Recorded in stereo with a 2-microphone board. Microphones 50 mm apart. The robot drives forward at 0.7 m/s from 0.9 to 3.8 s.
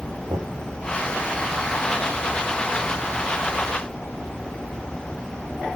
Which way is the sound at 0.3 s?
80° right.